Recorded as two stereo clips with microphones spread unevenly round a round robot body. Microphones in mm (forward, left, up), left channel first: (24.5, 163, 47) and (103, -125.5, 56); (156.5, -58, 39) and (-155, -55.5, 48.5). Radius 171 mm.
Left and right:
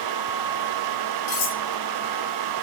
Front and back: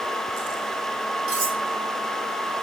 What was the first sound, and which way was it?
Cutlery clinking, 125° left.